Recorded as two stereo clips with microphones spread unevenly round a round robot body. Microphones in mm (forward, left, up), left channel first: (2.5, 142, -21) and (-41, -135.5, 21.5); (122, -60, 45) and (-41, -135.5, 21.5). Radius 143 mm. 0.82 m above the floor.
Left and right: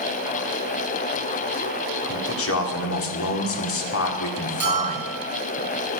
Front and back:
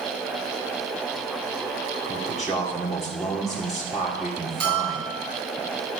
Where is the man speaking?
115° left, 2 m.